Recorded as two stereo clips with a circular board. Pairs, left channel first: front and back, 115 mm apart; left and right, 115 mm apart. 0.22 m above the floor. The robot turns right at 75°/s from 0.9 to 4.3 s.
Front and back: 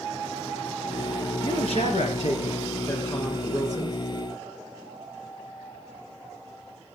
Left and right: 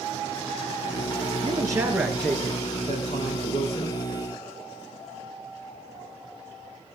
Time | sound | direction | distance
1.4 | a man speaking | 50° right | 3 m